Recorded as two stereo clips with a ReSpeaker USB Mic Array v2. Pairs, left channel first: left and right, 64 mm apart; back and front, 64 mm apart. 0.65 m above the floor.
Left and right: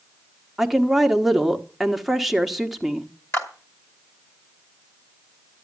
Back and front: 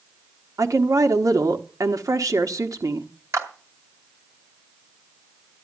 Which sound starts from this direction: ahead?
A woman speaking, at 0.6 s.